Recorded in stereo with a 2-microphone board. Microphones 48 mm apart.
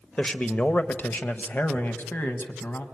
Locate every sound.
0.2 s a man speaking: 25° left (ahead or behind), 0.9 m; by 2.8 s 45° left (ahead or behind), 2 m